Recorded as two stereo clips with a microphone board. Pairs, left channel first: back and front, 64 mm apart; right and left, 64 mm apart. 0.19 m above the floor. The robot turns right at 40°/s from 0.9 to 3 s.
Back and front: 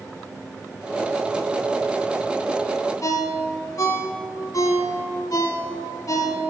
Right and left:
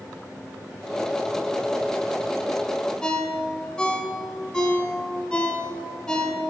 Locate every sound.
3.0 s a ringtone: 165° right, 0.7 m